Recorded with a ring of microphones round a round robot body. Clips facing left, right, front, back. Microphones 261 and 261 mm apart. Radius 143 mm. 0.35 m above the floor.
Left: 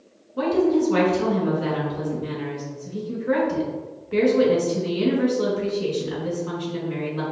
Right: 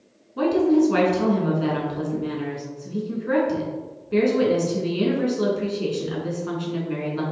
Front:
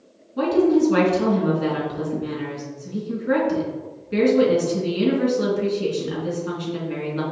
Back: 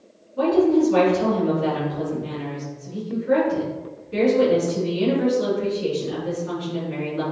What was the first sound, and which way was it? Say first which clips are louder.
A woman speaking: right 2 dB, even; 35° right.